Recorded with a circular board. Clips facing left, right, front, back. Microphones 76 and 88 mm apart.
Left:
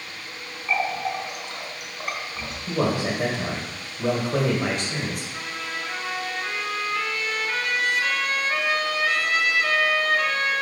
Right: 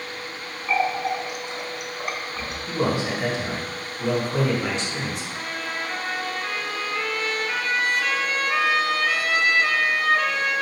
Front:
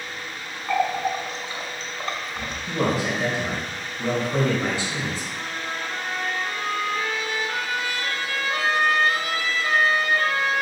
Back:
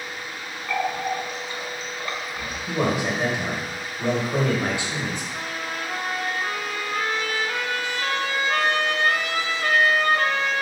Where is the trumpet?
175° right, 0.8 m.